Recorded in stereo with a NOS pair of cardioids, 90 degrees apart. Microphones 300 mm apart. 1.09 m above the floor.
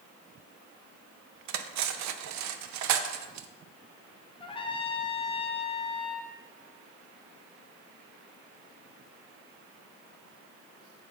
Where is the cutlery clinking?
65° right, 0.5 m.